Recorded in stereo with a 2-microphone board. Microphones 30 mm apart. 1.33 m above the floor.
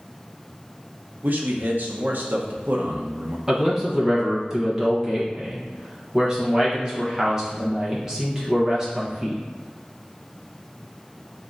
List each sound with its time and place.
1.2 s a man speaking: 70° right (ahead or behind), 0.8 m
3.5 s a man speaking: 20° right (ahead or behind), 1.2 m